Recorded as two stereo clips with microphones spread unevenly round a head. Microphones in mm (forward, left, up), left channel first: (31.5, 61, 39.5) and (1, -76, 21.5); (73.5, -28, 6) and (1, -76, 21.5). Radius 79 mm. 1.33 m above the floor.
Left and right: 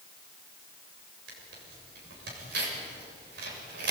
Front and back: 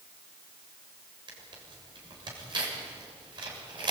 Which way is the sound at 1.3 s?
120° right.